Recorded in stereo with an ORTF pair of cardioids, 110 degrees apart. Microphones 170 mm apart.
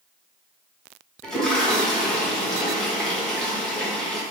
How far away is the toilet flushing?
About 0.9 m.